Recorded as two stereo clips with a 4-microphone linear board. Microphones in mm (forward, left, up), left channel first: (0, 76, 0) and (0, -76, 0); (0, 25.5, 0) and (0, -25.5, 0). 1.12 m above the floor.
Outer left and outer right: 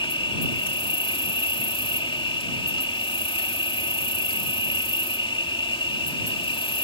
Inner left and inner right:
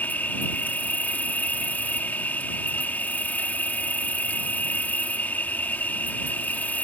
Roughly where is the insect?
Left.